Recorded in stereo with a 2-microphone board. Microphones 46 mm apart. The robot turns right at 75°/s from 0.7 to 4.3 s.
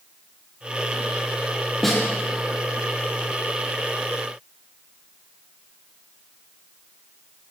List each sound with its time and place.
1.8 s a snare drum: 5° left (ahead or behind), 4 m; by 2.0 s 20° left (ahead or behind), 4 m